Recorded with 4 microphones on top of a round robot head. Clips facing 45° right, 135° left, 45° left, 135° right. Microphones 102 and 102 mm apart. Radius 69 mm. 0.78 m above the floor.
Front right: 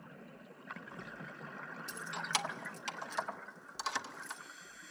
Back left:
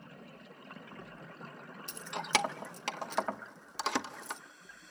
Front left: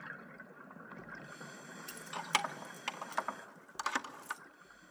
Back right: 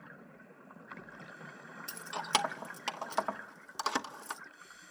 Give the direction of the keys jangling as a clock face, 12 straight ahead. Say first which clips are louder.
Back left 6 dB, back right 3 dB; 7 o'clock.